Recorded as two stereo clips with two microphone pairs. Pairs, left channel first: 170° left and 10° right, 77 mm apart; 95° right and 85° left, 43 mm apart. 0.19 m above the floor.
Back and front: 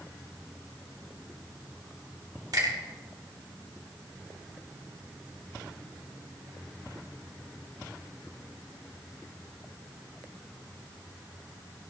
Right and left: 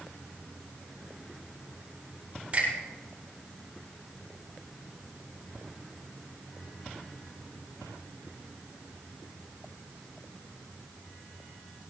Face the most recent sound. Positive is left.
turn(degrees=25)